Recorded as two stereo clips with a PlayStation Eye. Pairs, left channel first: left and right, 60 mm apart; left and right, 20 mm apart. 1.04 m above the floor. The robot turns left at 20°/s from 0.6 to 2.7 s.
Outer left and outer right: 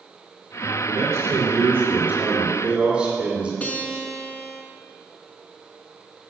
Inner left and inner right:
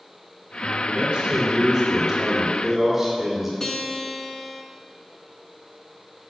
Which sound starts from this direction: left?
A guitar, at 3.6 s.